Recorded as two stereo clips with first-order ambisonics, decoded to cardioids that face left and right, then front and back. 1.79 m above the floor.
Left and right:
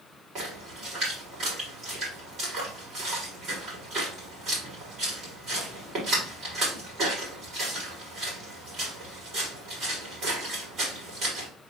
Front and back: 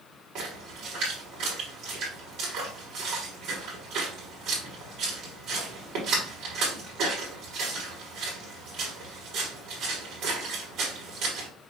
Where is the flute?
I don't hear a flute.